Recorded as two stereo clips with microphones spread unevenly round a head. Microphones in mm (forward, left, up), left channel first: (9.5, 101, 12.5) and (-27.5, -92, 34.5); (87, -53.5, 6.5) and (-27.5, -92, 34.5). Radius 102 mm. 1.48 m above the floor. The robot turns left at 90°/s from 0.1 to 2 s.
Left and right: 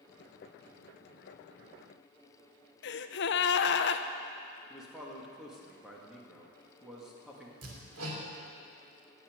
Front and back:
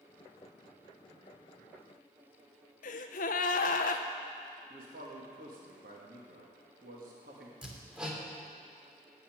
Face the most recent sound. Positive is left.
turn(degrees=-80)